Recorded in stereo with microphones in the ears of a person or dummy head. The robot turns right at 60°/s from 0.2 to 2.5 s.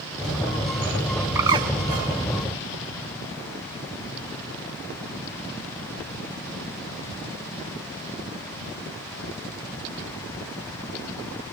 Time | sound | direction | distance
1.4 | a bird | 10° right (ahead or behind) | 1.0 m